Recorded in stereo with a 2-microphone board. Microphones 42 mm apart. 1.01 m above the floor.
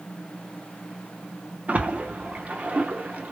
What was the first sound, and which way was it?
A splash, 35° right (ahead or behind).